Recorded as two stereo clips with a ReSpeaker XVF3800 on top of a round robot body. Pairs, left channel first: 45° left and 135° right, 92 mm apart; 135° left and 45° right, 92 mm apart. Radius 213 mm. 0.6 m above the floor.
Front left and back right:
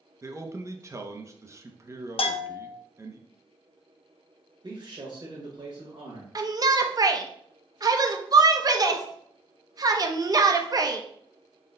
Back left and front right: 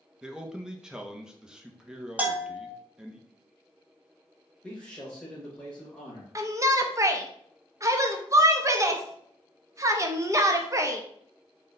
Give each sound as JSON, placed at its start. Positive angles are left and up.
{"t": 0.2, "sound": "a man speaking", "azimuth_deg": -120, "distance_m": 0.8}
{"t": 2.2, "sound": "a bell", "azimuth_deg": 30, "distance_m": 0.6}
{"t": 4.6, "sound": "a man speaking", "azimuth_deg": -150, "distance_m": 1.6}
{"t": 6.3, "sound": "a shout", "azimuth_deg": -95, "distance_m": 0.8}